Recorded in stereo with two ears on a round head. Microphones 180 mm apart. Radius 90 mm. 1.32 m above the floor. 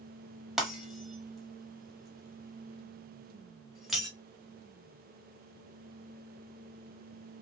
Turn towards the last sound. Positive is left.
turn(degrees=0)  # may be behind; listen again after turning